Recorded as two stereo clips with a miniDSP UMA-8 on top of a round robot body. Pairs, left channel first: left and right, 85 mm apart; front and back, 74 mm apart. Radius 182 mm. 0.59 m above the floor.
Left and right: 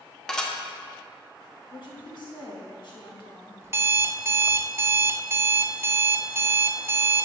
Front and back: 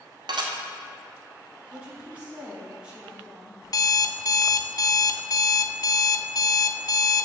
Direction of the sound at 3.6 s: 30° right.